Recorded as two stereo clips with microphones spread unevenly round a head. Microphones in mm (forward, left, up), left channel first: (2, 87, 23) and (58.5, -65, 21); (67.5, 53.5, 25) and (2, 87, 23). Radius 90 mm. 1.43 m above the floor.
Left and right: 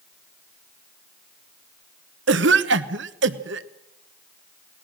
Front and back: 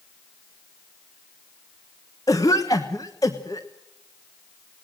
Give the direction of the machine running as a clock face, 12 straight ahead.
No machine running in this recording.